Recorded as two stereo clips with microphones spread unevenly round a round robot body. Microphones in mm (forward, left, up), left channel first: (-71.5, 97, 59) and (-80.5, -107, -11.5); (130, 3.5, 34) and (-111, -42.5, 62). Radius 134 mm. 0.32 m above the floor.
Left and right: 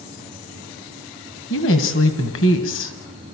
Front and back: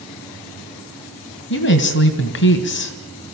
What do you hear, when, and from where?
1.5 s a woman speaking: 40° left, 2.5 m